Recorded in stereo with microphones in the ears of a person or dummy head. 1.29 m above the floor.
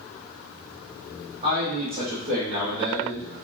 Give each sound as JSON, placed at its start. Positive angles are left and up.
{"t": 1.4, "sound": "a man speaking", "side_deg": -40, "distance_m": 1.5}